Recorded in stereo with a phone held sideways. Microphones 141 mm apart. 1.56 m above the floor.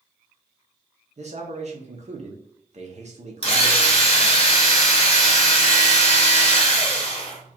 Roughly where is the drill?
Left.